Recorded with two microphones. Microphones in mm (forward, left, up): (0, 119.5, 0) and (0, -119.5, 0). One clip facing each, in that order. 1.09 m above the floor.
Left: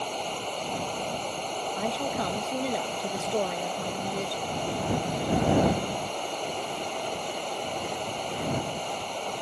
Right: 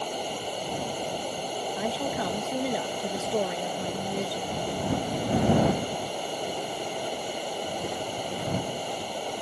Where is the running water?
10° right (ahead or behind).